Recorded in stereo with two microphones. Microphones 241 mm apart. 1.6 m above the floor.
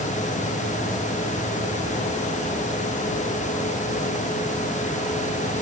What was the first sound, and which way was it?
Only background noise.